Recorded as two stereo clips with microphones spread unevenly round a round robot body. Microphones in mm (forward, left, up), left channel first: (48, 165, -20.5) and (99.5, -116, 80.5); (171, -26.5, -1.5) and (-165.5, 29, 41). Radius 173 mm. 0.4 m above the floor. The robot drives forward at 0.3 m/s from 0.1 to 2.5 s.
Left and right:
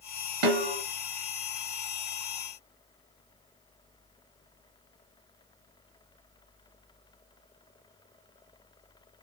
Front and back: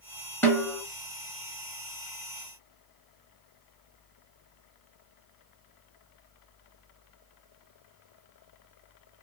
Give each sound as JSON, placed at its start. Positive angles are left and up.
{"t": 0.4, "sound": "a snare drum", "azimuth_deg": -95, "distance_m": 1.7}